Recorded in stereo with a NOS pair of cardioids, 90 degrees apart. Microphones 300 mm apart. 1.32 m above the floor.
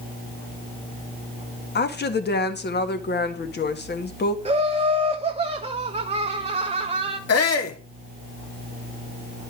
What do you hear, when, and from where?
1.8 s a woman speaking: 35° left, 1.6 m
4.5 s laughter: 20° right, 1.0 m
7.3 s a shout: 55° left, 2 m